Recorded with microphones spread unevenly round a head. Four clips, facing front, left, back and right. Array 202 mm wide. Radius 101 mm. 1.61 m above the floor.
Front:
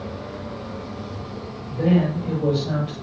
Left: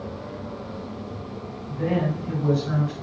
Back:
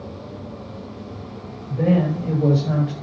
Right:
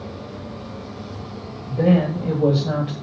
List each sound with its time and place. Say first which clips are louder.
1.7 s a woman speaking: right 7 dB, back 1 dB; 105° right, 3.5 m